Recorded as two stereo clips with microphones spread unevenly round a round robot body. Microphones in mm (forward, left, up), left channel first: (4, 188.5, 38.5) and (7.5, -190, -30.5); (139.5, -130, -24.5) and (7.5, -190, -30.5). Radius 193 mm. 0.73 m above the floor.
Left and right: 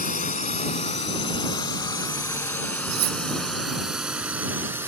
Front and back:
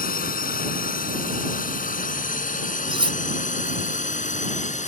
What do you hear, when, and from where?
0.0 s a drone: 20° left; by 4.9 s 5° right
2.9 s cutlery clinking: 100° right